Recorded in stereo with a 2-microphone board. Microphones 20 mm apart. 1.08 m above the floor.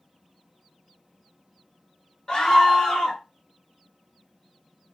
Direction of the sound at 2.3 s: 25° left (ahead or behind).